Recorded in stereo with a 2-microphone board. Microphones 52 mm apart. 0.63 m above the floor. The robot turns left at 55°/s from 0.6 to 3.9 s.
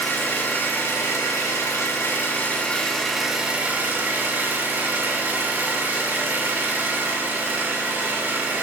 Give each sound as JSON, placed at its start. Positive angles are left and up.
{"t": 0.0, "sound": "an engine running", "azimuth_deg": 135, "distance_m": 1.8}